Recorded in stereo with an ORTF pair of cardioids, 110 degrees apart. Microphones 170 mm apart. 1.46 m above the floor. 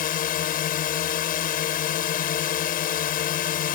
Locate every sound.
0.0 s a drone: 55° left